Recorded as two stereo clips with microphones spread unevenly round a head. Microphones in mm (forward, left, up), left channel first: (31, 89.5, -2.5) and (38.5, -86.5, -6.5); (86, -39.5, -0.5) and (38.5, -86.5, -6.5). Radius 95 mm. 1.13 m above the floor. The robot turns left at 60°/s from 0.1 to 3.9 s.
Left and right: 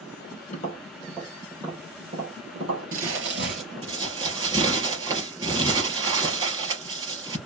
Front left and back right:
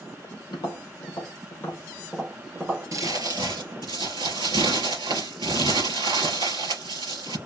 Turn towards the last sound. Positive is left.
turn(degrees=-155)